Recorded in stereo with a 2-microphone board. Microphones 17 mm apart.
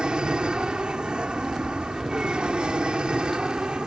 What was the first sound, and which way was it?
An aircraft, 60° right (ahead or behind).